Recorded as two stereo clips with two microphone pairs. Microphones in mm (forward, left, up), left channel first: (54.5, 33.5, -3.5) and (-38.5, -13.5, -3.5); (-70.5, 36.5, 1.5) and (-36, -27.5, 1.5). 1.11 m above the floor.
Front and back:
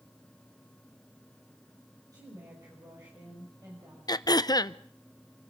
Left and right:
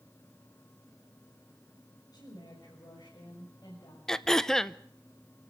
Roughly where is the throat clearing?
Ahead left.